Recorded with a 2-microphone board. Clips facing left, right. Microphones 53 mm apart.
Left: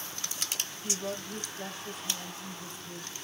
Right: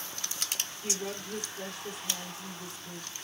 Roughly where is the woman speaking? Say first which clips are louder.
Left 1 dB; right.